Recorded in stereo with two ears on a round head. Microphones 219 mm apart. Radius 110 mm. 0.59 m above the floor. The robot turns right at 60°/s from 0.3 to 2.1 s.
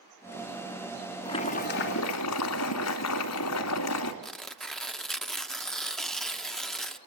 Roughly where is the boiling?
Ahead.